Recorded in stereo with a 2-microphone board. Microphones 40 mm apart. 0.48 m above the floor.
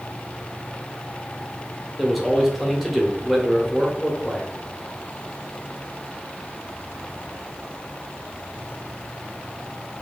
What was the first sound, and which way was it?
A man speaking, centre (ahead or behind).